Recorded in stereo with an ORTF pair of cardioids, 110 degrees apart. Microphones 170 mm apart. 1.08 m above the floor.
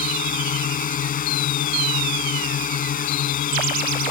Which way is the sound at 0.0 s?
55° left.